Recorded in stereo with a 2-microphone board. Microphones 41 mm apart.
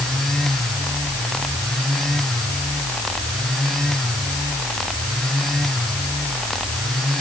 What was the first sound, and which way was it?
Only background noise.